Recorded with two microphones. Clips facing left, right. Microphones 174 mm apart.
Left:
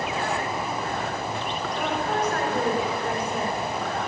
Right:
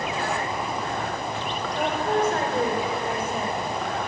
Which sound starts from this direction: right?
A woman speaking, at 1.8 s.